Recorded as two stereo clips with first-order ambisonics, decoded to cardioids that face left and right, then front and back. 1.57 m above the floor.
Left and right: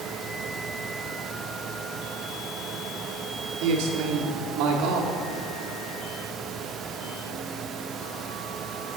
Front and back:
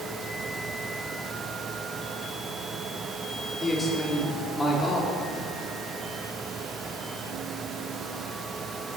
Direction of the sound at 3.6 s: 80° right.